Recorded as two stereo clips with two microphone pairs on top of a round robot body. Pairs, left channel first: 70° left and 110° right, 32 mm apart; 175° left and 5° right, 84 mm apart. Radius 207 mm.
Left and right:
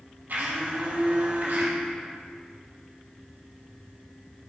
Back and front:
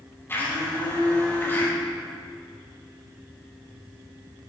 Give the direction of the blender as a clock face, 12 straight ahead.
4 o'clock.